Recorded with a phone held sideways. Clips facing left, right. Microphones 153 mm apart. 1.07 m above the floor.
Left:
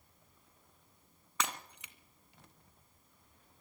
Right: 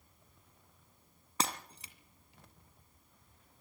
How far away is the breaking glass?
About 2 m.